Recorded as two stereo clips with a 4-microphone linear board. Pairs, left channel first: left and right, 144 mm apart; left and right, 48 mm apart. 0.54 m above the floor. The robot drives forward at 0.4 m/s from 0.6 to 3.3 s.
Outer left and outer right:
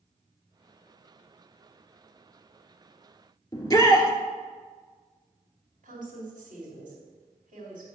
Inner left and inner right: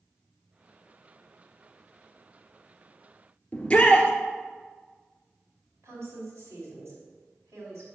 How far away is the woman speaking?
About 4 m.